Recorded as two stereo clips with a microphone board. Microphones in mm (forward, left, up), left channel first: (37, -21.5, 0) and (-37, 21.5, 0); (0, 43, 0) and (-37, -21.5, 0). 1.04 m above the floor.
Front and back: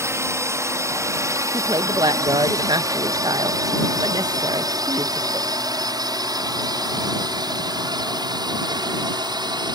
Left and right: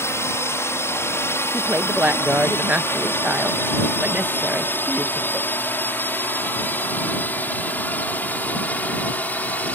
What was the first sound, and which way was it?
A drone, 105° left.